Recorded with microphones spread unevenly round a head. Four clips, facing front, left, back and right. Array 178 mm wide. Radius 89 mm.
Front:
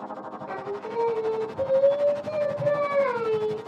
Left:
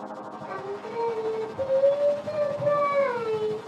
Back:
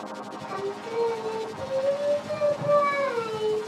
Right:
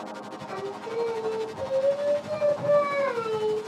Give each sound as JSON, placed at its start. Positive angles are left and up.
{"t": 0.5, "sound": "singing", "azimuth_deg": 25, "distance_m": 4.0}